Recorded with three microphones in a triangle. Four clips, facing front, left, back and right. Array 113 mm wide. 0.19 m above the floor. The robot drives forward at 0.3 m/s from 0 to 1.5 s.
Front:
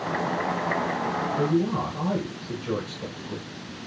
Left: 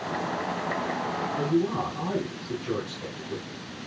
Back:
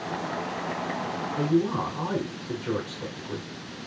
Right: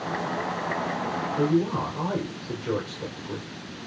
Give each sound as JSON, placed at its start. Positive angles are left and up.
{"t": 1.4, "sound": "a woman speaking", "azimuth_deg": -140, "distance_m": 1.9}